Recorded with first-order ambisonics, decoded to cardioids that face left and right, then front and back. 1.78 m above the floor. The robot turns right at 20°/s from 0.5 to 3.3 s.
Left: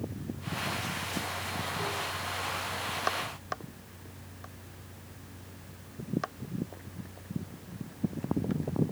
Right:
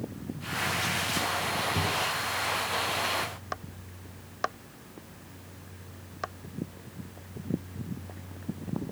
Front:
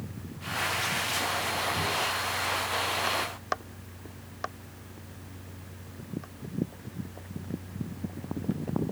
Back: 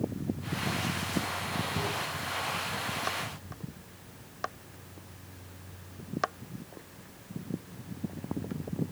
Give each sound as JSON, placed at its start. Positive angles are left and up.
{"t": 1.8, "sound": "a drawer", "azimuth_deg": -100, "distance_m": 8.0}